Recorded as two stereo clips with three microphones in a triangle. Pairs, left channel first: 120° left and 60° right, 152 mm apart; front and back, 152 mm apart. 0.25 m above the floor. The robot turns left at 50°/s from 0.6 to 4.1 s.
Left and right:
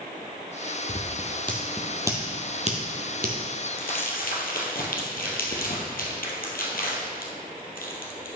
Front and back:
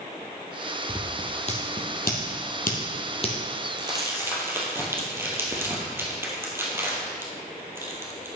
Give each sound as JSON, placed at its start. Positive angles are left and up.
{"t": 0.9, "sound": "scissors", "azimuth_deg": 70, "distance_m": 1.9}
{"t": 3.8, "sound": "crumpling", "azimuth_deg": 125, "distance_m": 2.0}